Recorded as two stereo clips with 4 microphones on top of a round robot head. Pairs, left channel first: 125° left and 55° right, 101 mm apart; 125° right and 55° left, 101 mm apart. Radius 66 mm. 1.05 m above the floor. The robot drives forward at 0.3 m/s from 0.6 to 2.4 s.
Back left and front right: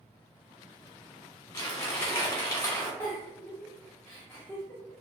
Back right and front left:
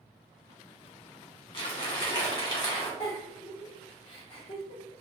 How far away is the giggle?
About 1.1 m.